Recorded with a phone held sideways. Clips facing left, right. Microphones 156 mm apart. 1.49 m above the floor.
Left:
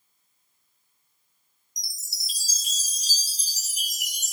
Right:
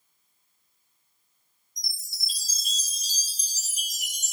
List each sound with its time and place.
1.8 s a chime: 85° left, 0.8 m